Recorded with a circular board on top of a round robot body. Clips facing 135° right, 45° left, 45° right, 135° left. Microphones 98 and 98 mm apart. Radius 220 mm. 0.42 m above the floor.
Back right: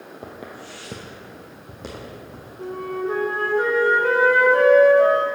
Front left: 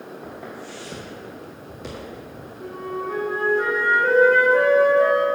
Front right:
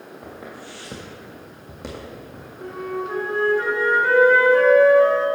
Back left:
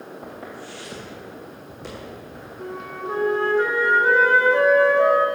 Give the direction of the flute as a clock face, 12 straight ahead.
5 o'clock.